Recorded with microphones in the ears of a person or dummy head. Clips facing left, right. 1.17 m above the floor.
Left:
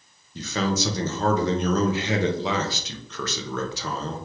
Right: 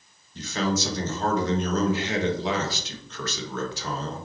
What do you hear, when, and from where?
0.3 s a man speaking: 60° left (ahead or behind), 0.8 m